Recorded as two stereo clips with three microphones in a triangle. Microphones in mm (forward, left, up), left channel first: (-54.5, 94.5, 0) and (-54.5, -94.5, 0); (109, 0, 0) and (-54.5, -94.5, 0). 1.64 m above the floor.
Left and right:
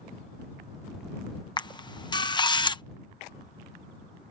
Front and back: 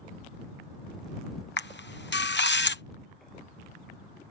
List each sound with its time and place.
1.6 s a camera shutter: 25° left